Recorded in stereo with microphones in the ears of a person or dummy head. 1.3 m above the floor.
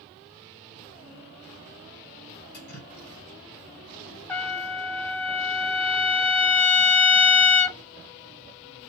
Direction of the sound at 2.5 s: 45° left (ahead or behind).